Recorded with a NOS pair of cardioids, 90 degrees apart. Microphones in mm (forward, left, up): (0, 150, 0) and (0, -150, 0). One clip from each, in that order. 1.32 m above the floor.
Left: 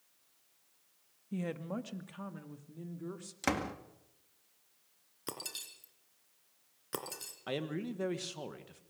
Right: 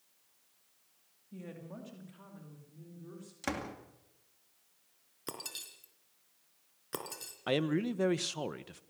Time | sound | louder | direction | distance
1.3 | a woman speaking | left 8 dB | 65° left | 2 m
3.4 | a door slam | left 4 dB | 30° left | 2 m
5.3 | breaking glass | even | 5° left | 3.5 m
7.5 | a man speaking | right 7 dB | 35° right | 1.4 m